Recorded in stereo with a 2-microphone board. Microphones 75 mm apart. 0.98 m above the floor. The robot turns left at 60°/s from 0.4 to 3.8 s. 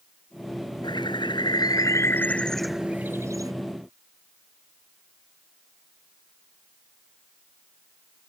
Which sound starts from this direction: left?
A bird, at 0.8 s.